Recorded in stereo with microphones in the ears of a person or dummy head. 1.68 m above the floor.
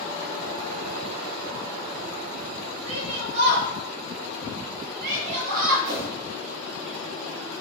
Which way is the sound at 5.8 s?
55° right (ahead or behind).